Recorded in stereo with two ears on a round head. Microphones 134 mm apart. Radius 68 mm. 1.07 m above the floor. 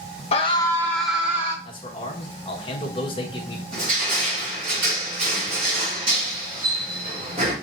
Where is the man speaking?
35° left (ahead or behind), 1.1 m.